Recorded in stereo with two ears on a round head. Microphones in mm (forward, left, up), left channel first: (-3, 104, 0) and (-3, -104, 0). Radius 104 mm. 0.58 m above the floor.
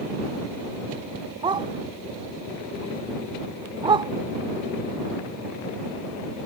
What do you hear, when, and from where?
1.4 s a dog barking: 20° right (ahead or behind)